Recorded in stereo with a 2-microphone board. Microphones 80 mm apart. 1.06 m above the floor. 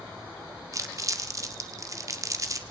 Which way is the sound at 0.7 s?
40° right (ahead or behind).